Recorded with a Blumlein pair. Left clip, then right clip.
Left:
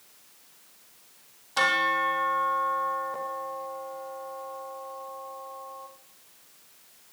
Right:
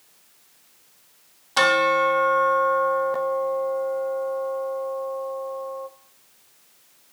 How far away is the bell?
About 0.9 m.